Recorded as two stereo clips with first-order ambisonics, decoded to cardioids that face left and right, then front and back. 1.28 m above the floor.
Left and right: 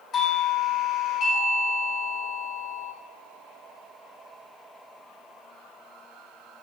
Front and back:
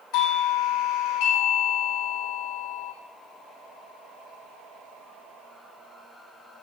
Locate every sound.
0.1 s a doorbell: 25° left, 6.5 m